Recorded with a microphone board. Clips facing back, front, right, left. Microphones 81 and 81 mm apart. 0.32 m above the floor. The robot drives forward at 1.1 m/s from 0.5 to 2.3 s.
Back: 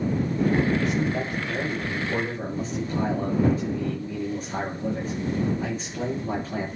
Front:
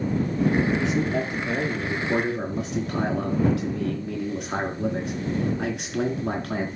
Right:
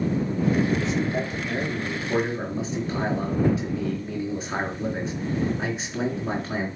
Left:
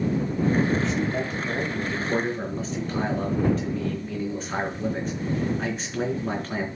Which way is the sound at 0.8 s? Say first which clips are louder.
Front 1 dB, even; 5° right.